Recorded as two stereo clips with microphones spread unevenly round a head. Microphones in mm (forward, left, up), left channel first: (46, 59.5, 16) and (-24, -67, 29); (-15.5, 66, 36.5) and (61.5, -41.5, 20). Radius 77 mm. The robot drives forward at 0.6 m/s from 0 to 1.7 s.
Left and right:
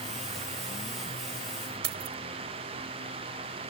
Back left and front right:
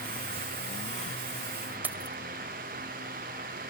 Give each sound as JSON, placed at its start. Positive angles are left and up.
{"t": 1.8, "sound": "keys jangling", "azimuth_deg": -135}